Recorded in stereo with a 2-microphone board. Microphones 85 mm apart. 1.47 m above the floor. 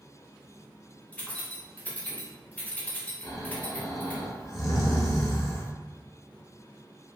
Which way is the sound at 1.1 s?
15° left (ahead or behind).